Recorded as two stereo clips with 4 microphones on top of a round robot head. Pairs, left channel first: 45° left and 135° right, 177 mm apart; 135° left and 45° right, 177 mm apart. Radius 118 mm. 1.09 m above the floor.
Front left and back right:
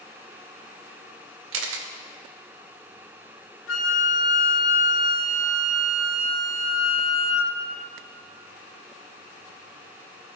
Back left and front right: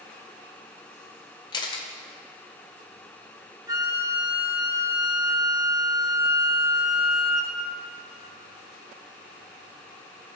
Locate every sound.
1.5 s a camera shutter: 155° right, 0.8 m
3.7 s a flute: 30° left, 1.6 m